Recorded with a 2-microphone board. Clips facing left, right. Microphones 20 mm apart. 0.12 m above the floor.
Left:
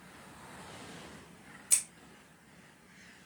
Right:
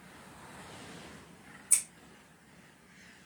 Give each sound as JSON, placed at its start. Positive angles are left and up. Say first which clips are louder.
{"t": 1.7, "sound": "scissors", "louder": "even", "side_deg": 60, "distance_m": 2.5}